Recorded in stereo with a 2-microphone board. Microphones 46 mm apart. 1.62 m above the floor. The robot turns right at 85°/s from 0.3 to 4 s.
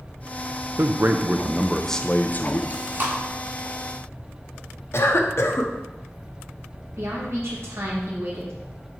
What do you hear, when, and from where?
0.8 s a man speaking: 80° right, 0.6 m; by 2.6 s 75° left, 0.6 m
2.7 s chewing: 35° right (ahead or behind), 1.4 m; by 3.1 s 40° right (ahead or behind), 1.4 m
4.9 s a cough: 60° left (ahead or behind), 1.0 m
7.0 s a woman speaking: 65° right (ahead or behind), 2 m